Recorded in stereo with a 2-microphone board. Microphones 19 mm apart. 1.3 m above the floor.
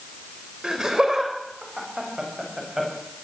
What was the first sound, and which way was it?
Laughter, 30° right (ahead or behind).